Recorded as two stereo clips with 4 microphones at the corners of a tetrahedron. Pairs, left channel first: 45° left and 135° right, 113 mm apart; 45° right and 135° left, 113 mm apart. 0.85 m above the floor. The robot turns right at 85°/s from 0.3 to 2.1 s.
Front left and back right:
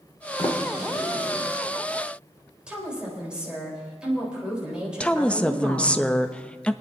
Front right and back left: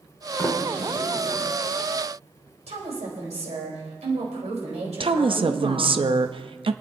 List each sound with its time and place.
0.4 s a sliding door: 10° left, 1.8 m; by 1.5 s 100° left, 1.8 m
2.7 s a woman speaking: 145° left, 4 m
5.0 s a woman speaking: 125° left, 0.6 m